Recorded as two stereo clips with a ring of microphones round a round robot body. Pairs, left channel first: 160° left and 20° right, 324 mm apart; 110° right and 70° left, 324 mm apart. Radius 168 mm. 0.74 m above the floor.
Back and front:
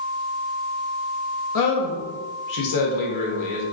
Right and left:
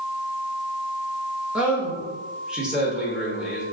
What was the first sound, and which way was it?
A man speaking, 155° left.